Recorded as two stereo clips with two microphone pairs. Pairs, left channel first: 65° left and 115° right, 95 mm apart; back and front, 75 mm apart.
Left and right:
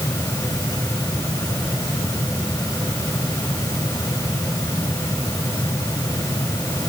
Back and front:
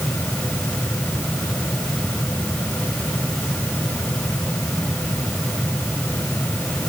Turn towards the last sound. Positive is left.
No sound to turn to.